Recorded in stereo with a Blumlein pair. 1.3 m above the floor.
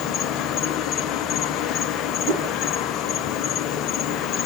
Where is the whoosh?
20° right, 1.4 m.